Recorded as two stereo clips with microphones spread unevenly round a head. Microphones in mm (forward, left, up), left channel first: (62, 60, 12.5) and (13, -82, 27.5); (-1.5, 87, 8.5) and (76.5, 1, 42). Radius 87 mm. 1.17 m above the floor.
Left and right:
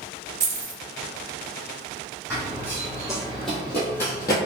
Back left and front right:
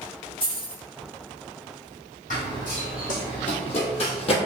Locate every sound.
0.4 s keys jangling: 140° right, 0.8 m
2.3 s running footsteps: 175° right, 1.9 m; by 4.3 s 125° left, 1.3 m